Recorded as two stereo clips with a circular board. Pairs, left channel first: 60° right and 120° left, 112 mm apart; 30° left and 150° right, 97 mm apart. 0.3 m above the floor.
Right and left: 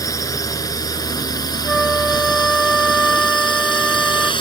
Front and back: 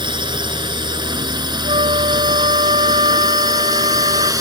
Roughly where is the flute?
Behind right.